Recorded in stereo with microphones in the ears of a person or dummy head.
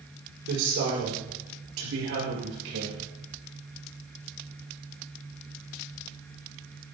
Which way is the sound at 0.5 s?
70° right (ahead or behind).